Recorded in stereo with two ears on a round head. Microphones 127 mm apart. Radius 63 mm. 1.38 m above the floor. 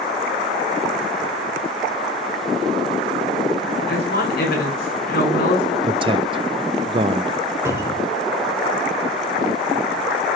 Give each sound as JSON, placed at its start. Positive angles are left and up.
{"t": 3.9, "sound": "a woman speaking", "side_deg": 75, "distance_m": 6.5}
{"t": 5.8, "sound": "a man speaking", "side_deg": -35, "distance_m": 0.6}
{"t": 7.7, "sound": "a cupboard door", "side_deg": -20, "distance_m": 2.5}